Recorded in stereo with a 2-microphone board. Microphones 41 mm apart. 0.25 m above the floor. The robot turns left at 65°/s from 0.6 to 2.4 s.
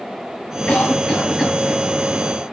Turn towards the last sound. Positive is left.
turn(degrees=-60)